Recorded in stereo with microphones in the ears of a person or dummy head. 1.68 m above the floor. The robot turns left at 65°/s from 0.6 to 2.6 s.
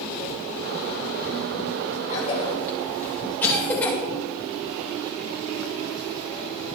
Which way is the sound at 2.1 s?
45° left (ahead or behind).